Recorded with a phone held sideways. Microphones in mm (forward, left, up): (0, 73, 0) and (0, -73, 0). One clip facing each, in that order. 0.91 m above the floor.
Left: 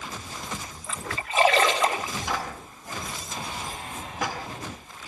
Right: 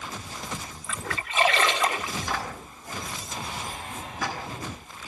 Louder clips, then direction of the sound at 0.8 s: Even; 40° left (ahead or behind).